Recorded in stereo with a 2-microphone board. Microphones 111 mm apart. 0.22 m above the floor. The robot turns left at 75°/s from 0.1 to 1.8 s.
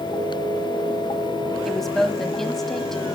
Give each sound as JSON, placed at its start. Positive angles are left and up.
{"t": 1.6, "sound": "a woman speaking", "side_deg": 0, "distance_m": 1.2}